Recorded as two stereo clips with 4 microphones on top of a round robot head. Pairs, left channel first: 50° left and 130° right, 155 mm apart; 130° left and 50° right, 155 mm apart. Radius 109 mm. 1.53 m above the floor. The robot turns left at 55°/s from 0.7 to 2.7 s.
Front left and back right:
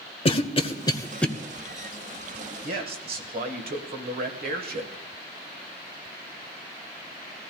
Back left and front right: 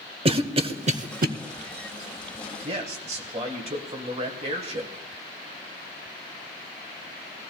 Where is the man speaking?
100° right, 1.6 m; by 5.0 s 105° right, 1.6 m.